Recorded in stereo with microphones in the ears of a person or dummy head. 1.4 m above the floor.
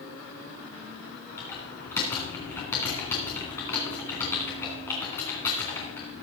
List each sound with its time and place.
1.4 s typing on a keyboard: 10° left (ahead or behind), 2.5 m